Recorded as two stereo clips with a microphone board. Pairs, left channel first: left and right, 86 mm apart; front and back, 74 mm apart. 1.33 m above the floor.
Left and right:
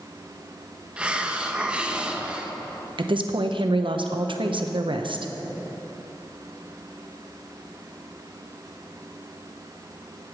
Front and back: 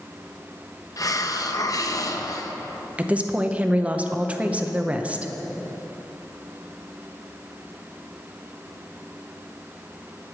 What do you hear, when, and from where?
1.0 s a hiss: 15° right, 0.7 m
3.0 s a woman speaking: 105° right, 0.8 m